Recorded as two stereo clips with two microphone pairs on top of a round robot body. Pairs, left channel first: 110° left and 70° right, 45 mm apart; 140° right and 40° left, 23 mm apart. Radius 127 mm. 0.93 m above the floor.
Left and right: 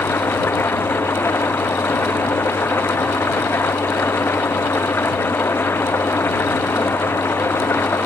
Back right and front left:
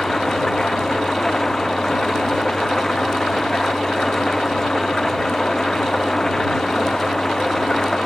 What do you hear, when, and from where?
0.0 s an engine running: 145° left